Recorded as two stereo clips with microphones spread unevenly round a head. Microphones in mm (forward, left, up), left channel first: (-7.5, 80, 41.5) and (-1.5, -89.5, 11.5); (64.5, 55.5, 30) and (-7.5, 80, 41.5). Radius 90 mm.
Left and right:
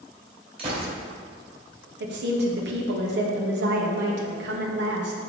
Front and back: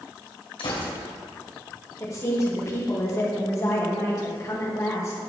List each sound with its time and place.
0.6 s a gunshot: 25° right, 2.5 m
2.0 s a woman speaking: 75° right, 1.9 m